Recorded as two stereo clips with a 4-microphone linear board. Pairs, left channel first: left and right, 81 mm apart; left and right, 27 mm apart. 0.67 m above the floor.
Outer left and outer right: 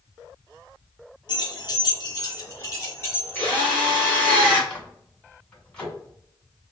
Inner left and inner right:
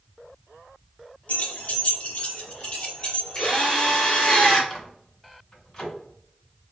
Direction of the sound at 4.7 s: 15° left (ahead or behind).